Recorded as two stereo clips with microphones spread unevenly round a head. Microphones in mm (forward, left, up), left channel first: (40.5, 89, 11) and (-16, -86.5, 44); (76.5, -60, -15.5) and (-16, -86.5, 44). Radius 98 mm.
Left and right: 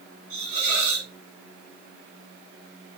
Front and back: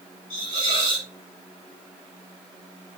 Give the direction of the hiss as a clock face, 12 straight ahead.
4 o'clock.